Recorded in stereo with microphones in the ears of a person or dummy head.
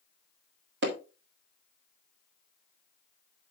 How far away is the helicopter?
I don't hear a helicopter.